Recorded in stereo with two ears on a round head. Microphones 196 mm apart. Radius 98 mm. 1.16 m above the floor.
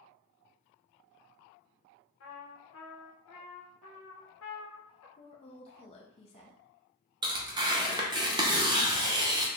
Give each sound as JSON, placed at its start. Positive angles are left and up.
{"t": 2.2, "sound": "a trumpet", "side_deg": 65, "distance_m": 0.9}
{"t": 5.2, "sound": "a woman speaking", "side_deg": 25, "distance_m": 0.5}
{"t": 7.2, "sound": "tearing paper", "side_deg": -20, "distance_m": 0.7}